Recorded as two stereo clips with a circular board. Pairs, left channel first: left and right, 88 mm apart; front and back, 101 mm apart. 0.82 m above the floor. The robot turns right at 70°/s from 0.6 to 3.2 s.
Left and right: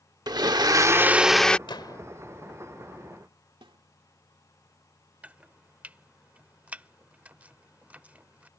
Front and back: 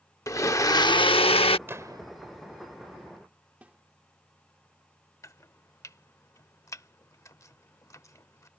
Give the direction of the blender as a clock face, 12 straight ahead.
2 o'clock.